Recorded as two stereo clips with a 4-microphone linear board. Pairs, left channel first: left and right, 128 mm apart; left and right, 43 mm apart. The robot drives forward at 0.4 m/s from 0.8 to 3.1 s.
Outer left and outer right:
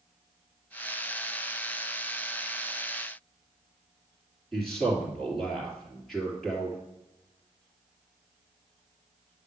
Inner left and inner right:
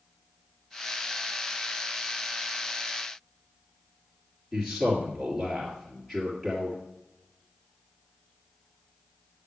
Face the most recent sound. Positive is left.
turn(degrees=0)  # may be behind; listen again after turning